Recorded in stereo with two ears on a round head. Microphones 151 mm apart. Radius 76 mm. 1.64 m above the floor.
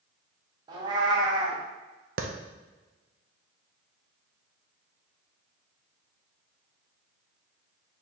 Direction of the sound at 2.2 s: 50° right (ahead or behind).